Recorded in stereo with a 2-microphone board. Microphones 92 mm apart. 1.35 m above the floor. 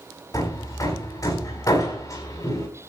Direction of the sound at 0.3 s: 40° left (ahead or behind).